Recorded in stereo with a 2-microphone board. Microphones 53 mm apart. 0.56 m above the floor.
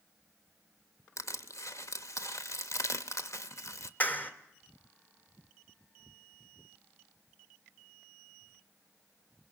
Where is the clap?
30° left (ahead or behind), 1.4 m.